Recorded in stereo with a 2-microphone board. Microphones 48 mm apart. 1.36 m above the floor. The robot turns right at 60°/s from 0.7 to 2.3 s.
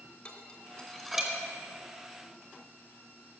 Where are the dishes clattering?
20° left (ahead or behind), 2.5 m; by 1.4 s 20° right (ahead or behind), 2.5 m.